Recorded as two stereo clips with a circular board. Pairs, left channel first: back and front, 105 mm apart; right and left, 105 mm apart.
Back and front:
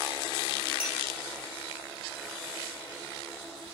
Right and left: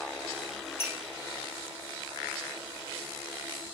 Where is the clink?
80° right, 0.7 m.